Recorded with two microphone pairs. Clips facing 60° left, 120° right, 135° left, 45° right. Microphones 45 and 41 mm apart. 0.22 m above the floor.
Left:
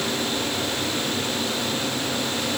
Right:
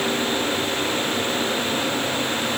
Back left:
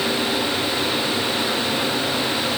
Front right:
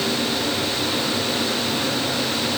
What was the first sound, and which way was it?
Only background noise.